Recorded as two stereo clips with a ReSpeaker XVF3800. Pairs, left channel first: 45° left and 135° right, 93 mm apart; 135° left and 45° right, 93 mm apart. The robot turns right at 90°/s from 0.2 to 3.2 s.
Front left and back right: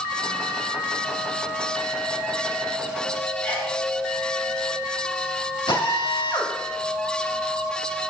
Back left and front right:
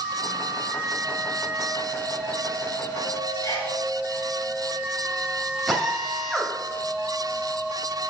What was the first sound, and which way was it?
A sneeze, 105° left.